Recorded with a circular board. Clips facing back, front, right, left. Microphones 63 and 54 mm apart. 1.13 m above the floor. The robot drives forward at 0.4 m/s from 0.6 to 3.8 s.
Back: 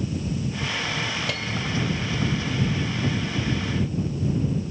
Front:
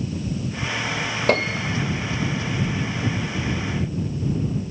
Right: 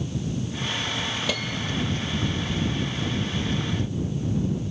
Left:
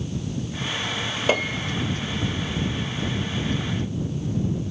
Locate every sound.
1.3 s a piano: 40° left